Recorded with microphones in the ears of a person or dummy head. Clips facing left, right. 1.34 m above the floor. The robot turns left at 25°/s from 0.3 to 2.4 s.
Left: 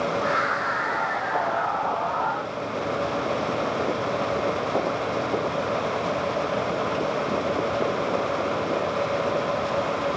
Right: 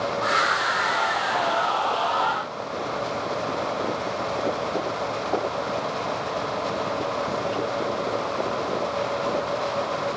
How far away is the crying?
I don't hear crying.